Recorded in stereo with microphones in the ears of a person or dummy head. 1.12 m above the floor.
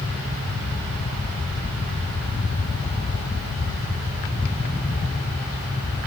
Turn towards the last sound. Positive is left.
No sound to turn to.